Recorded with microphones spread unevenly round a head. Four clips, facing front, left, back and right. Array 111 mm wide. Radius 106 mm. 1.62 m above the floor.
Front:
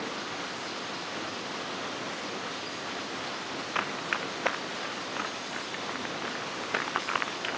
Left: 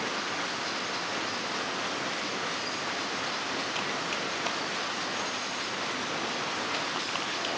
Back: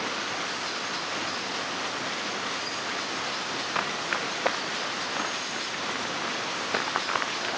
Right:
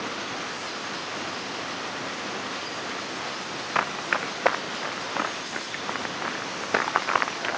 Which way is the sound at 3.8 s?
85° right.